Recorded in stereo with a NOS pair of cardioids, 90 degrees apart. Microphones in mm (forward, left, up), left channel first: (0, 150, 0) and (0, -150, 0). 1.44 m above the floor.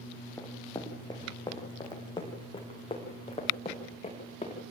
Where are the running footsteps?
10° left, 4.5 m; by 4.6 s 20° left, 8 m.